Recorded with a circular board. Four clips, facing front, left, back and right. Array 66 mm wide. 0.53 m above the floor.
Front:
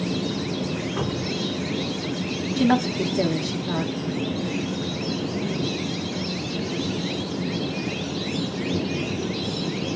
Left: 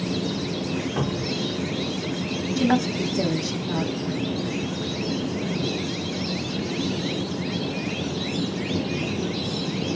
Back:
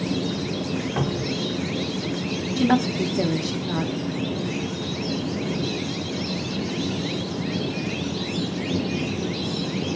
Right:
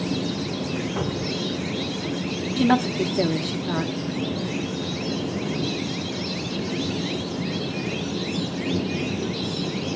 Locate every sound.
1.0 s a cupboard door: 170° left, 1.9 m
2.6 s a woman speaking: 90° right, 0.6 m